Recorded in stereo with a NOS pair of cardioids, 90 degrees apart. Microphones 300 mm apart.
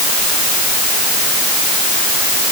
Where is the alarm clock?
I don't hear an alarm clock.